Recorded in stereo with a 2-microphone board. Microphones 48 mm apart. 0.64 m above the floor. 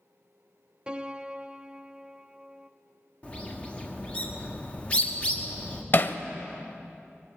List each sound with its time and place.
0.9 s a piano: 20° right (ahead or behind), 0.5 m
3.2 s a bird: 25° left (ahead or behind), 1.5 m
5.9 s hammering: 45° left (ahead or behind), 0.6 m